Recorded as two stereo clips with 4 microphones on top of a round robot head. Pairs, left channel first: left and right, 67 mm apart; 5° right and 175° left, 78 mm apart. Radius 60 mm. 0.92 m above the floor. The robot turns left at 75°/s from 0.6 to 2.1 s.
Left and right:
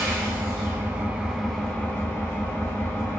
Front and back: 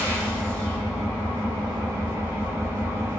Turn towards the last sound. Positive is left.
turn(degrees=130)